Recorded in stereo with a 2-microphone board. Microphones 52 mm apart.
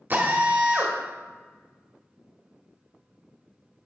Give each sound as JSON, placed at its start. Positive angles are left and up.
{"t": 0.1, "sound": "a drill", "side_deg": -40, "distance_m": 1.4}